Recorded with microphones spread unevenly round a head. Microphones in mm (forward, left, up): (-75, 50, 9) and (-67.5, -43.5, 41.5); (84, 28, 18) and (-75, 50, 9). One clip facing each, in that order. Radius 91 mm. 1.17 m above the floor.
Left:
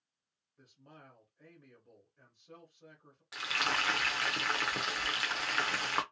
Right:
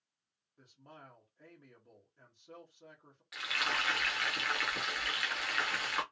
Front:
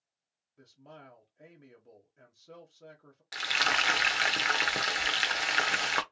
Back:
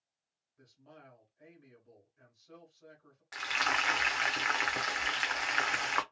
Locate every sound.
0.6 s a man speaking: 5° right, 0.9 m
3.3 s frying: 45° left, 0.5 m